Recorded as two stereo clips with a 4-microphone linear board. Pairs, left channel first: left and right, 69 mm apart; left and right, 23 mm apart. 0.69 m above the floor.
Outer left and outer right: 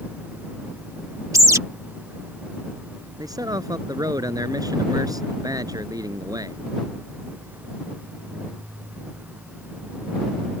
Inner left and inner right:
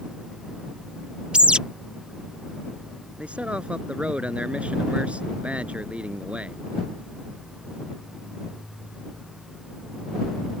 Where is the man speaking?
65° right (ahead or behind).